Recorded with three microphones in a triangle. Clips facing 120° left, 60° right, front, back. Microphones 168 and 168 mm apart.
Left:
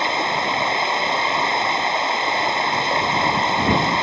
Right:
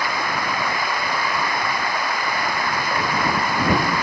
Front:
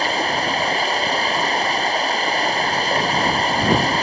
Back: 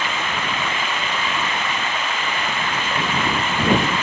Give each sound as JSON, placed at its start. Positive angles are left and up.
{"t": 0.0, "sound": "running water", "azimuth_deg": 55}